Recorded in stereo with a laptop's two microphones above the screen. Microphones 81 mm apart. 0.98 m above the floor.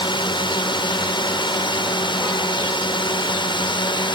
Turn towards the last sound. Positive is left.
turn(degrees=70)  # may be behind; listen again after turning